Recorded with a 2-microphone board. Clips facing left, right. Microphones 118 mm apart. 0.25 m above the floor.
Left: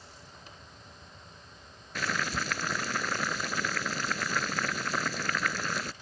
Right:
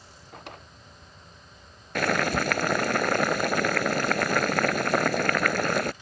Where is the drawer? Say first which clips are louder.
Right 7 dB; 70° right (ahead or behind).